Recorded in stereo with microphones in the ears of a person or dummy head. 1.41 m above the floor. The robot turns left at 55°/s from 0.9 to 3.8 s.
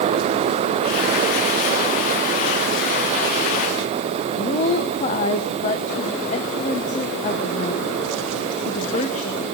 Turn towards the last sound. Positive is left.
turn(degrees=40)  # may be behind; listen again after turning